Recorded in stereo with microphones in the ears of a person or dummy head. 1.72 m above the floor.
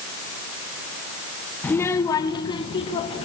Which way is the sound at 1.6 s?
10° left (ahead or behind).